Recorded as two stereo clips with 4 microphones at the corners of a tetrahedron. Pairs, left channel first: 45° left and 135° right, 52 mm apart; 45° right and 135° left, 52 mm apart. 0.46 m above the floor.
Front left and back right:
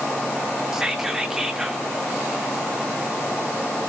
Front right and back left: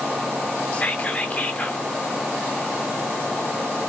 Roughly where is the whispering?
Ahead right.